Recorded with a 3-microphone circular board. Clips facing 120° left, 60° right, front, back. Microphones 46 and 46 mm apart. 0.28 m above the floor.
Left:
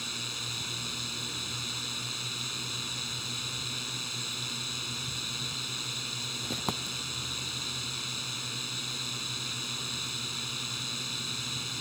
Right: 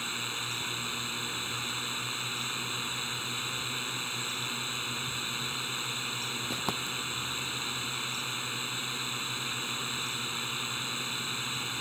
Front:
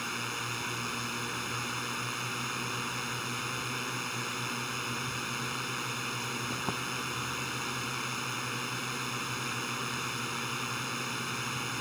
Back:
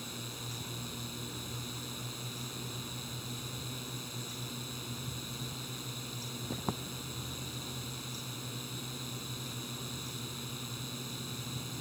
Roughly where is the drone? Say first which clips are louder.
Right 3 dB, front 9 dB; ahead.